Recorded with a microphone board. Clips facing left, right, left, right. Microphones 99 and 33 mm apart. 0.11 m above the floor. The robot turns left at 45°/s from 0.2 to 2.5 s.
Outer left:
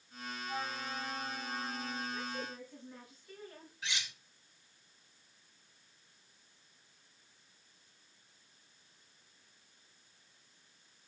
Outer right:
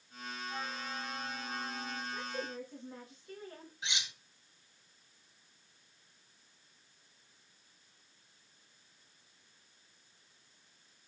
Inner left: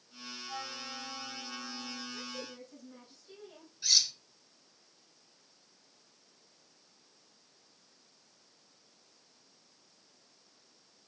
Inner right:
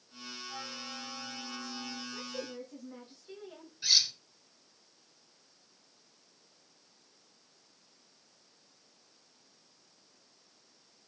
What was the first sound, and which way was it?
A flute, 50° left.